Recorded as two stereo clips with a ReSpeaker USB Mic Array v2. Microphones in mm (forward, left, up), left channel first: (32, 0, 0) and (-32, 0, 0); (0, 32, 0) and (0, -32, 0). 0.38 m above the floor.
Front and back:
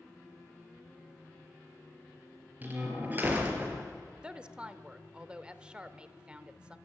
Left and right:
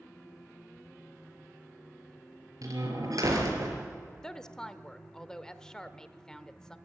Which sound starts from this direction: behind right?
A door slam, at 2.6 s.